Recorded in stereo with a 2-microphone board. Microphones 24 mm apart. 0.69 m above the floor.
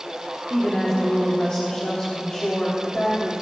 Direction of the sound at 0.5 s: 50° left (ahead or behind).